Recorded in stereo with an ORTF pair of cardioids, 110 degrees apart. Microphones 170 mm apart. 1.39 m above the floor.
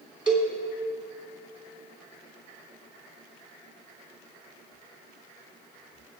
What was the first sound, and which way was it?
A cowbell, 5° right.